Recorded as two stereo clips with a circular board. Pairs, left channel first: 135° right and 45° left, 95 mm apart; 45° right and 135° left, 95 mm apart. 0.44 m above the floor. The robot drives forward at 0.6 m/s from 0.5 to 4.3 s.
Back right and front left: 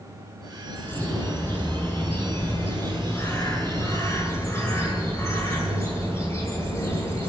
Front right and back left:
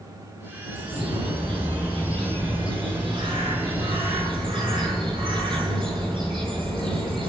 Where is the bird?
155° left, 6.5 m; by 7.3 s 160° left, 8.5 m.